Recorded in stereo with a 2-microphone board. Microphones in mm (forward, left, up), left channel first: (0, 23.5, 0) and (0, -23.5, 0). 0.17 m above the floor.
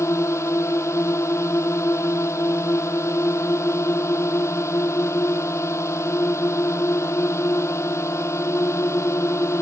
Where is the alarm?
No alarm in this recording.